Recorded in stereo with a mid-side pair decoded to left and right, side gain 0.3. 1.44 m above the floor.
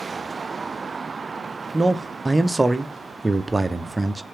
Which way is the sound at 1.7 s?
30° right.